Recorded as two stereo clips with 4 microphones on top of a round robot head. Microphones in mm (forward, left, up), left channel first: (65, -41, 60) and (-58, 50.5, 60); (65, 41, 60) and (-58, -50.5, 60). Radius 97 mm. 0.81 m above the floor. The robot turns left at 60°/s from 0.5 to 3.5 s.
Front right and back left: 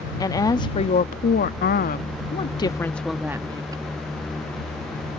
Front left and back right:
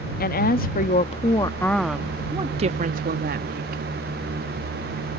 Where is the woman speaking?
30° left; by 3.8 s 150° right.